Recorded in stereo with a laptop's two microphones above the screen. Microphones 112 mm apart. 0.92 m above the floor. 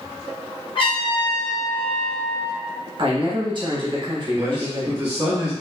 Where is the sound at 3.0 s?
45° right (ahead or behind), 0.9 m.